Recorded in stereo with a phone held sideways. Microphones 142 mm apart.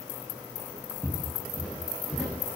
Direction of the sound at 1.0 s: 10° right (ahead or behind).